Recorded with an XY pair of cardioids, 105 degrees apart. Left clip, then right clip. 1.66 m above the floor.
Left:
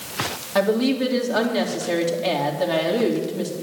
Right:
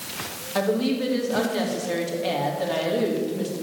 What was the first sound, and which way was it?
A woman speaking, 20° left.